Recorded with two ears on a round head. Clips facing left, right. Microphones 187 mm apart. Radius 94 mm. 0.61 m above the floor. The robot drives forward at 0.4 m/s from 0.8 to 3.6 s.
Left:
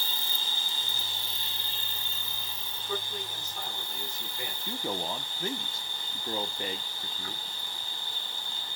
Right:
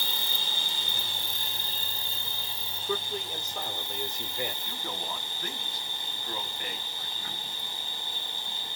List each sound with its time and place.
0.0 s an insect: 55° right (ahead or behind), 0.7 m; by 8.8 s 20° right (ahead or behind), 1.6 m
2.8 s a man speaking: 60° right (ahead or behind), 1.5 m; by 4.5 s 55° right (ahead or behind), 1.5 m
4.7 s a man speaking: 25° left (ahead or behind), 0.8 m